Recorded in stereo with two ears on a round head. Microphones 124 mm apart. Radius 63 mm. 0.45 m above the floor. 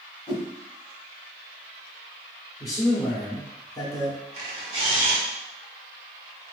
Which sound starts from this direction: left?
A man speaking, at 2.6 s.